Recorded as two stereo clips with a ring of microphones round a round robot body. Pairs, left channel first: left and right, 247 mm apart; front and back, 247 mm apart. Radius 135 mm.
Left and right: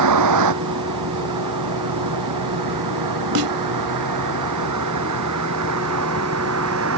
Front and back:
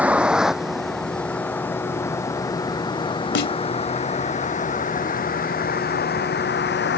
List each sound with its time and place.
0.0 s a vehicle: 95° right; by 7.0 s 45° right
3.4 s a snare drum: 45° right